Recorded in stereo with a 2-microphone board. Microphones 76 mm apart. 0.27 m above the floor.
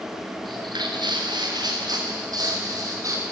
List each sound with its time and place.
0.4 s footsteps: 85° right, 4.5 m; by 3.2 s 50° right (ahead or behind), 7 m